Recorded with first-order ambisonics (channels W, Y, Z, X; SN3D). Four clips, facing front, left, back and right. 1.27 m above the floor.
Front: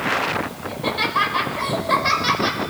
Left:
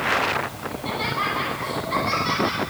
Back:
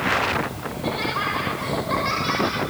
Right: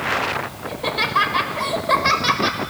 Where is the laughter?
70° right, 6 m.